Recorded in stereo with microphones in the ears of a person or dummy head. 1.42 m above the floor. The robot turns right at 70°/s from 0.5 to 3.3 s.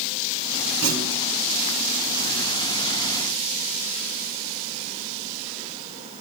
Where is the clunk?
85° right, 3 m; by 1.2 s 65° right (ahead or behind), 3 m.